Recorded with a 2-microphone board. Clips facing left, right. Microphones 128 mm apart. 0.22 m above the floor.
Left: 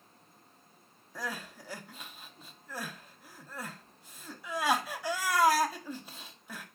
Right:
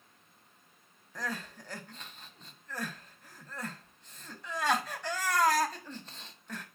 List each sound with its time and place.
1.1 s crying: 10° left (ahead or behind), 0.6 m